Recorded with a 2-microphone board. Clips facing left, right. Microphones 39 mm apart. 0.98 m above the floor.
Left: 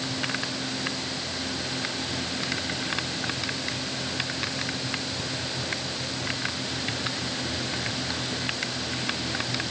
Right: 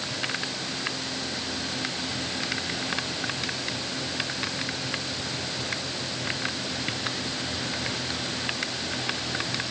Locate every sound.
Only background noise.